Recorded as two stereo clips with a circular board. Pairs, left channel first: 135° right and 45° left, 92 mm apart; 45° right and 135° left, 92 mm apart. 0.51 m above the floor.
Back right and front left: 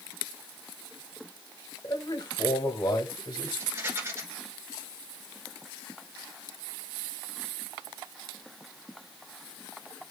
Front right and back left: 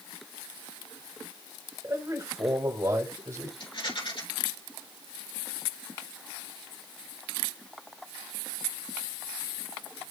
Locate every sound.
1.8 s a man speaking: 175° right, 1.6 m
3.6 s a rattle: 20° right, 4 m